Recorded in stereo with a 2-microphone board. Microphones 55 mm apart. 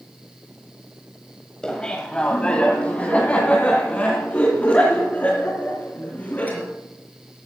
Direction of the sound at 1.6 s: 15° left (ahead or behind).